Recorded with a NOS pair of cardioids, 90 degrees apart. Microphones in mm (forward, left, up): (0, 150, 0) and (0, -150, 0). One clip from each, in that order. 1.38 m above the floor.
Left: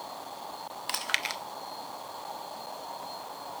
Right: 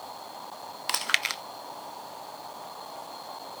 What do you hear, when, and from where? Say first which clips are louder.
0.9 s chewing: right 4 dB; 20° right, 0.6 m